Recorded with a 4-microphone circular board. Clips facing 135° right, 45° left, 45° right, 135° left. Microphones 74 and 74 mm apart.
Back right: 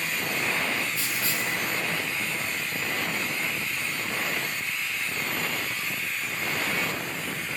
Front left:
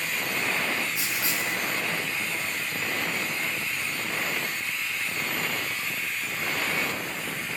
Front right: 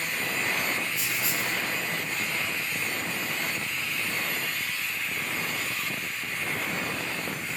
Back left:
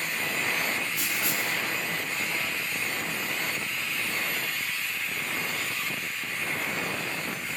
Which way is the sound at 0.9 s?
115° left.